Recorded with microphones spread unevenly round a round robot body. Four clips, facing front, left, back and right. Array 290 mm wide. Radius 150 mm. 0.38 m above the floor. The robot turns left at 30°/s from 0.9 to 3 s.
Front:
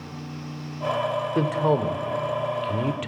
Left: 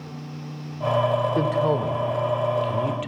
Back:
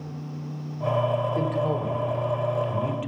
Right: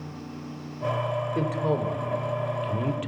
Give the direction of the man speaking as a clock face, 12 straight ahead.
11 o'clock.